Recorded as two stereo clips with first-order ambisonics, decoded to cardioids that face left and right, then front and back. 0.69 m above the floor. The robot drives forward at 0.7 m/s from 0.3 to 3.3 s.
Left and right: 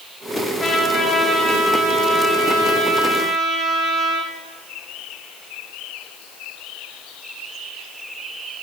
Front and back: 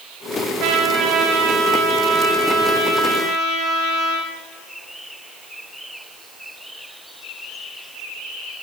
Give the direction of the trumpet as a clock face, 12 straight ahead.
6 o'clock.